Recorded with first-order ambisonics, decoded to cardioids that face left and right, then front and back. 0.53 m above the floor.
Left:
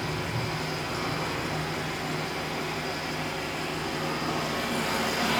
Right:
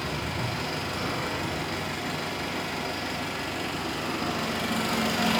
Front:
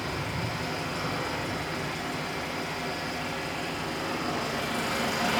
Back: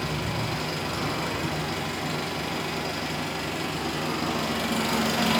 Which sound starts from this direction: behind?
An engine running, at 0.0 s.